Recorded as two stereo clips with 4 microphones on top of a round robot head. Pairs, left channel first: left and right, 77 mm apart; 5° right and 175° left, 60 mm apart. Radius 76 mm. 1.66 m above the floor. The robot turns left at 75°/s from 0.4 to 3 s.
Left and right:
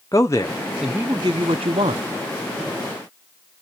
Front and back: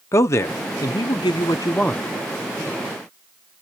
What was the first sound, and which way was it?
A man speaking, 30° left.